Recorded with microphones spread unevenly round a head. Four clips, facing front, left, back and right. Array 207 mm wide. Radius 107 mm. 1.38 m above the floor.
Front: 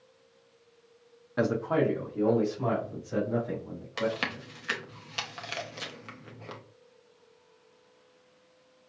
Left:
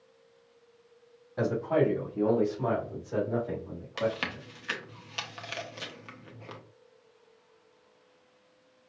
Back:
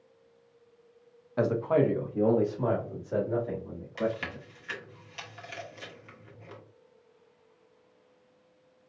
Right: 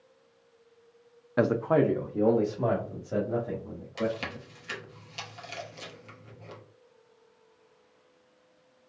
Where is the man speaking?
65° right, 0.6 m; by 4.5 s 115° right, 3 m.